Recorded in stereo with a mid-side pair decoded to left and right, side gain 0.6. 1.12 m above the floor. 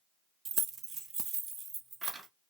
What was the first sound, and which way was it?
Keys jangling, 40° right.